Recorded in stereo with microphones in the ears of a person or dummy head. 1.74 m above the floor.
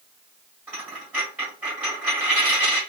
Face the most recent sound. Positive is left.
turn(degrees=-5)  # may be behind; listen again after turning